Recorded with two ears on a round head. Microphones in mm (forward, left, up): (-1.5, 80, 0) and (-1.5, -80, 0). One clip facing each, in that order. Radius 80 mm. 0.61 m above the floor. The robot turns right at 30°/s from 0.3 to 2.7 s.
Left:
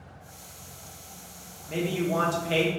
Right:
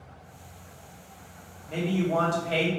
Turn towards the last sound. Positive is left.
turn(degrees=60)